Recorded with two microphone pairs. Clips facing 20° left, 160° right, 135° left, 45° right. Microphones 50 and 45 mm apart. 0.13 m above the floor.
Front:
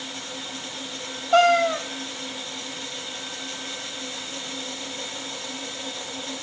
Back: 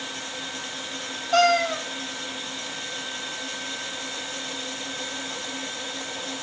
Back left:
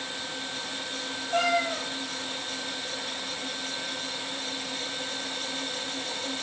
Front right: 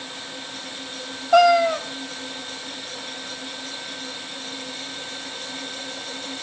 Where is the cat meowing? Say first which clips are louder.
Front 2 dB, front right 11 dB; 50° right, 1.1 m.